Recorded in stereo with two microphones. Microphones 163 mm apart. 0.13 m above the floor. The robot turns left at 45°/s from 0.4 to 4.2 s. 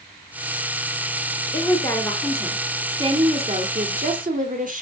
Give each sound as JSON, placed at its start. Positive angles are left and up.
{"t": 1.5, "sound": "a woman speaking", "azimuth_deg": 30, "distance_m": 2.5}